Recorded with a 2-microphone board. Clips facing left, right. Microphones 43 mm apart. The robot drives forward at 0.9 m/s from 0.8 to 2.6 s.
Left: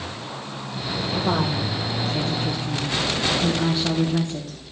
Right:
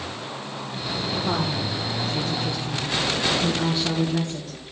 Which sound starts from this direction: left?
A woman speaking, at 1.1 s.